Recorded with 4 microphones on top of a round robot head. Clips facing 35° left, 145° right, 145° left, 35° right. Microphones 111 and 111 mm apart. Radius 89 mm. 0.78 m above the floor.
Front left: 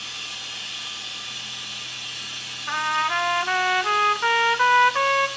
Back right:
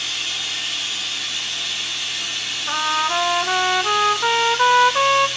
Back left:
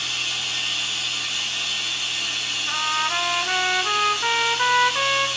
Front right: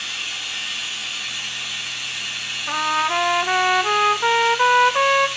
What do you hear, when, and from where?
0.0 s running water: 150° right, 1.3 m
2.7 s a trumpet: 80° right, 0.5 m